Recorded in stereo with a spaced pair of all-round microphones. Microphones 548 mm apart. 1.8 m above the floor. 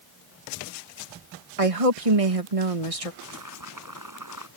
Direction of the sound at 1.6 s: 85° right.